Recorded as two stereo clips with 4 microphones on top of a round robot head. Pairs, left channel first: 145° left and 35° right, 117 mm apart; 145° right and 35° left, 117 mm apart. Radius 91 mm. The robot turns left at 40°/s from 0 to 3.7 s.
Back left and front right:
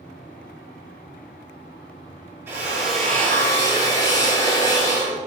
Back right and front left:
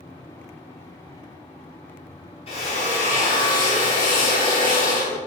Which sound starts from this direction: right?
A drill, at 2.5 s.